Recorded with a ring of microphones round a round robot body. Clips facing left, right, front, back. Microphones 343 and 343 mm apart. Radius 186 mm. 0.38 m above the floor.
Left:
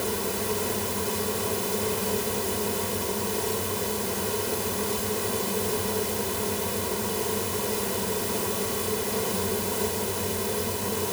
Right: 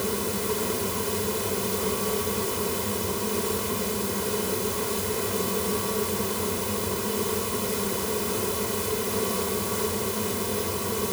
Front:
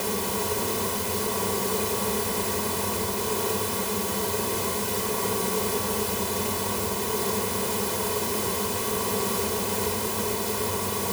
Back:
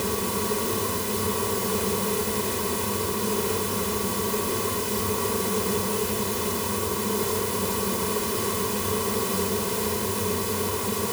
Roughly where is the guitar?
I don't hear a guitar.